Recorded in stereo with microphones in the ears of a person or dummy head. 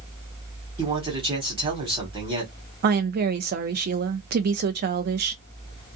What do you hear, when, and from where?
0.8 s a man speaking: 25° right (ahead or behind), 1.3 m
2.8 s a woman speaking: 45° right (ahead or behind), 0.5 m